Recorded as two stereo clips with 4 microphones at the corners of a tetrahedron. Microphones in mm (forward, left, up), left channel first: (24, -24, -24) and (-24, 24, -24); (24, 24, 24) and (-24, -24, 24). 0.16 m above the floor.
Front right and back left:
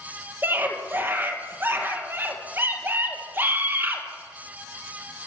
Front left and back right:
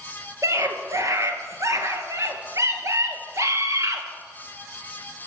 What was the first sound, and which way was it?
A scream, 170° right.